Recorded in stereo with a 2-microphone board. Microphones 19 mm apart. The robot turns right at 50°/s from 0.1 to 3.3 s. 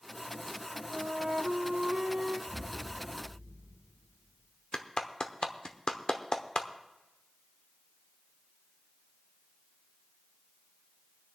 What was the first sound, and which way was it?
A flute, 125° right.